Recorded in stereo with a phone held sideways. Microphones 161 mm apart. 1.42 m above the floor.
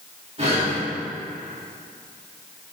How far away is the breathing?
About 4 m.